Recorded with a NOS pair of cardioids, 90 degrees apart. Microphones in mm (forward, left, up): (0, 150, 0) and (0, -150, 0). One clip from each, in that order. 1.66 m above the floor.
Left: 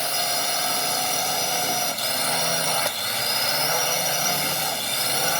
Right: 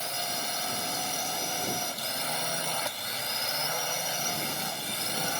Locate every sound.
0.0 s a drone: 60° left